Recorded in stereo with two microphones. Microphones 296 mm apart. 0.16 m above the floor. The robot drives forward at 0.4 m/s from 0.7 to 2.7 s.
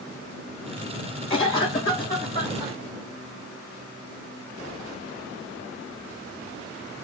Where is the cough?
15° left (ahead or behind), 1.0 m.